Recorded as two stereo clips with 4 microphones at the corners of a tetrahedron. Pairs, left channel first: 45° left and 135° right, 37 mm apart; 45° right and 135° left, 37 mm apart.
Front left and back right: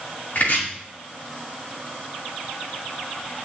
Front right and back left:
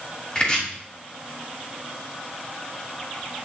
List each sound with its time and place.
0.3 s chopping: 15° left, 2.5 m